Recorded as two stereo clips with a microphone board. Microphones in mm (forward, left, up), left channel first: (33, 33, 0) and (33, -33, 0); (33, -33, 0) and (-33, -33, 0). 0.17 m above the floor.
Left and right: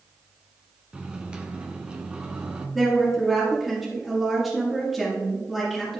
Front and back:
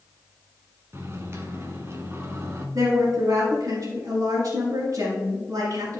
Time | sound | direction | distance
0.9 | a microwave | 155° right | 1.3 m
2.8 | a woman speaking | 175° left | 2.5 m